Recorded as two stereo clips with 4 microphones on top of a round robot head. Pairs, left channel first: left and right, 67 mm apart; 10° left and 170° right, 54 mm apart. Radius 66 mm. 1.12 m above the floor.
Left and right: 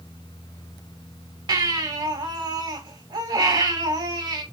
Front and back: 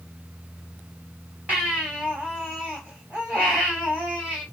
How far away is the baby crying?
About 5 m.